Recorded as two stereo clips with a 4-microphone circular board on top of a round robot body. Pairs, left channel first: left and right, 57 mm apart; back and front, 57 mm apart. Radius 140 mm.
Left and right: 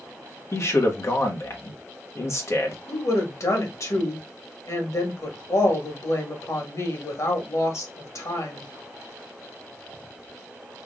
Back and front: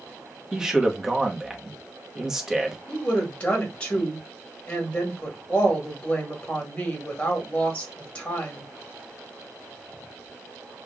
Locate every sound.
0.5 s a man speaking: 75° left, 1.4 m
2.9 s a woman speaking: 105° left, 1.9 m